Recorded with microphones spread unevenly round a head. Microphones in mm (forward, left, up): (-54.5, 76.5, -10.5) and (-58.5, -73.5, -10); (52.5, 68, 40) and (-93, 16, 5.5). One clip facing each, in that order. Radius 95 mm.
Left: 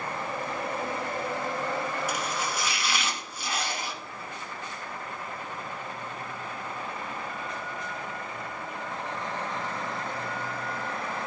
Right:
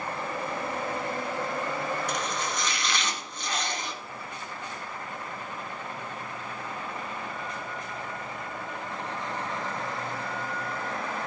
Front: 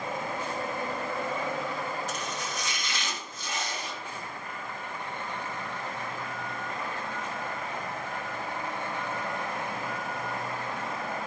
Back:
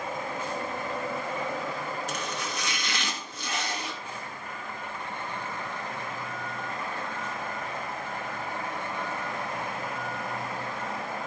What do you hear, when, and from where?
2.1 s chopping: 170° left, 2.5 m